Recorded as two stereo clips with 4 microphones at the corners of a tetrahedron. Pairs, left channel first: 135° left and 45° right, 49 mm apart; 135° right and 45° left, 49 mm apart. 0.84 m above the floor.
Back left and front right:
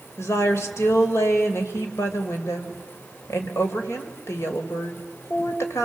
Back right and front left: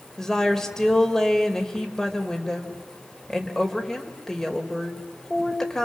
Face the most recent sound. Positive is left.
turn(degrees=145)